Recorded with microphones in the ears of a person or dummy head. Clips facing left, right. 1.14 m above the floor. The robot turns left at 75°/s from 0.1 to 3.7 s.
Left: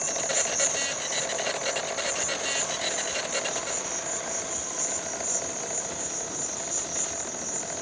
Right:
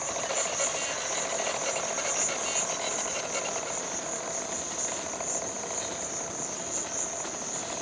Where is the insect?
70° left, 1.0 m; by 7.8 s 160° left, 1.0 m.